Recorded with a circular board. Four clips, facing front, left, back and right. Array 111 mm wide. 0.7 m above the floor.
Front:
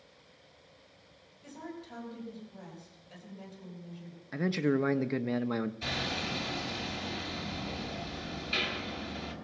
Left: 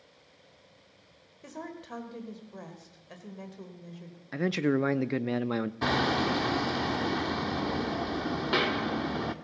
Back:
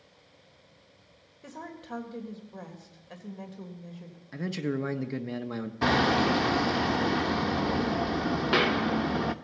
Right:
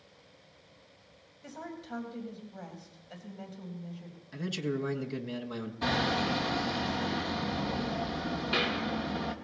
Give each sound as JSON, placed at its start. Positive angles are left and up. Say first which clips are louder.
{"t": 1.4, "sound": "a woman speaking", "louder": "left 1 dB, back 2 dB", "azimuth_deg": 140, "distance_m": 3.5}
{"t": 4.3, "sound": "a man speaking", "louder": "left 7 dB, front 3 dB", "azimuth_deg": 70, "distance_m": 0.6}
{"t": 5.8, "sound": "hammering", "louder": "left 1 dB, back 13 dB", "azimuth_deg": 160, "distance_m": 0.7}